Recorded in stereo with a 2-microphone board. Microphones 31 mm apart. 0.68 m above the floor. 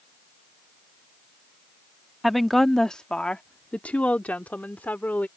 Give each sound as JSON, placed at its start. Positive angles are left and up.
{"t": 2.2, "sound": "a woman speaking", "side_deg": -5}